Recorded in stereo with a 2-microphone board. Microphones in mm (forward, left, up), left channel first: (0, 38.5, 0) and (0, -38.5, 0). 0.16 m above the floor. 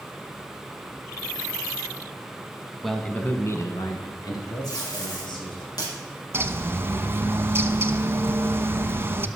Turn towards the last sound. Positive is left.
turn(degrees=-30)  # may be behind; listen again after turning